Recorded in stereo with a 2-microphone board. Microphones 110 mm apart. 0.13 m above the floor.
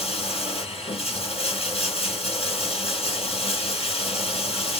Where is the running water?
65° left (ahead or behind), 2.5 m.